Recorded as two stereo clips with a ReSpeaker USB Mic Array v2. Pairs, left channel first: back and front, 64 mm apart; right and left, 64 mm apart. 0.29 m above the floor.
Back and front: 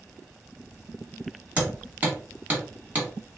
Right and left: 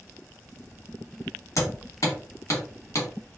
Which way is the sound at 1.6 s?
60° right.